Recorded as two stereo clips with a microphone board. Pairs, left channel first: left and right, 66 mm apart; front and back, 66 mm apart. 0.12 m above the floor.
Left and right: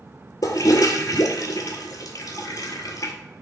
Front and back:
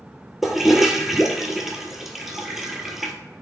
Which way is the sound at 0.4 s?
95° left.